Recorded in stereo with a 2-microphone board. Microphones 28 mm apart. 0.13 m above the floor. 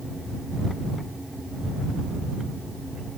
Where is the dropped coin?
No dropped coin in this recording.